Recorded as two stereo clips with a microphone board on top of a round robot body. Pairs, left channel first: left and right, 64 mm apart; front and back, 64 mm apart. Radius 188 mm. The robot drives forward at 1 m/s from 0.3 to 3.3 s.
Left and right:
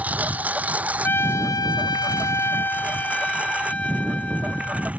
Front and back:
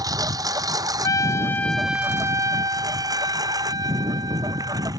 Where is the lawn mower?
155° right.